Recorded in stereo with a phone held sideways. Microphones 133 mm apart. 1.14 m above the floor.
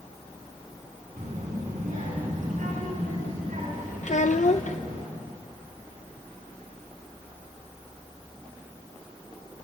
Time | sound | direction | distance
1.2 | a child speaking | 85° right | 7.5 m
4.0 | a child speaking | 65° left (ahead or behind) | 0.6 m